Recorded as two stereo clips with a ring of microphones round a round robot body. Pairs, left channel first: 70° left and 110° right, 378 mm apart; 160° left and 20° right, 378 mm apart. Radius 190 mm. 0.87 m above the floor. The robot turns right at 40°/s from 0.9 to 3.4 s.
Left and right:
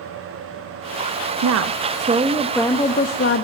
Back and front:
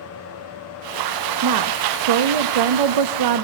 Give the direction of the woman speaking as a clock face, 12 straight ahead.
2 o'clock.